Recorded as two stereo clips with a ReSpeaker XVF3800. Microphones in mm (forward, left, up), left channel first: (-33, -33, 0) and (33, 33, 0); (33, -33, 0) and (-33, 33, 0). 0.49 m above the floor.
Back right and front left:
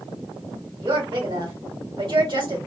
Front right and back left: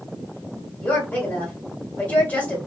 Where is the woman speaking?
30° left, 1.6 m.